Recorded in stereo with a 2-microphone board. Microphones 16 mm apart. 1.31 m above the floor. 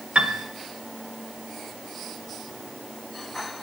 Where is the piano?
85° right, 0.6 m.